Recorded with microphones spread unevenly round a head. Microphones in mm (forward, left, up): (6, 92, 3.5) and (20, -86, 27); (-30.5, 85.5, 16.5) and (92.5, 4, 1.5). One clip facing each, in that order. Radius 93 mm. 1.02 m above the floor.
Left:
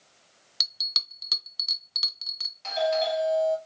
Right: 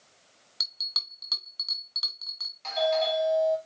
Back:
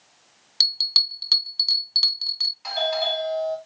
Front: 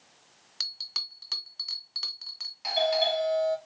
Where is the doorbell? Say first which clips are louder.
Left 1 dB, even; 15° left, 3 m.